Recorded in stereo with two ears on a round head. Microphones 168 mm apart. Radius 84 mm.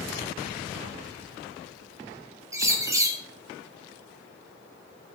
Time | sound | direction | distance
2.5 | a bird | 15° right (ahead or behind) | 2.5 m